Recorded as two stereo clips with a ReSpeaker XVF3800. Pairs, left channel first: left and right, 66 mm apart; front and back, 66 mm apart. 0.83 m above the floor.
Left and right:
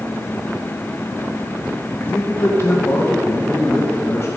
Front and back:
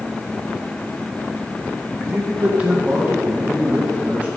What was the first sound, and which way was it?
A man speaking, 115° left.